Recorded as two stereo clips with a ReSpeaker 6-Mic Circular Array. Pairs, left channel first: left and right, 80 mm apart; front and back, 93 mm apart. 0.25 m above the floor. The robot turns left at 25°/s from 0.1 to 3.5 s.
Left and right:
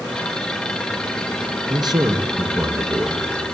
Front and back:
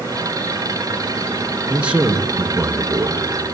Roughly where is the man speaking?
Right.